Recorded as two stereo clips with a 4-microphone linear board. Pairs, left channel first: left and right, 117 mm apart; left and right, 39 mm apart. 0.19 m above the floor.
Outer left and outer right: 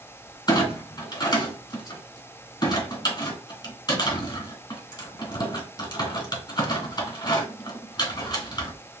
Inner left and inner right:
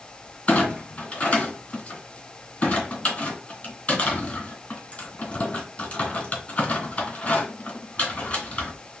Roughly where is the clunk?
Left.